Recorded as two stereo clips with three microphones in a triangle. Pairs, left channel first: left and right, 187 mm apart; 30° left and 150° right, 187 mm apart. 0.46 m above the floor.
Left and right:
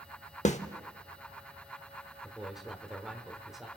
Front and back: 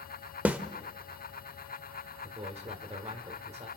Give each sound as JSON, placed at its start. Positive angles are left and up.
{"t": 0.5, "sound": "a snare drum", "azimuth_deg": 130, "distance_m": 0.8}
{"t": 2.2, "sound": "a man speaking", "azimuth_deg": 180, "distance_m": 1.8}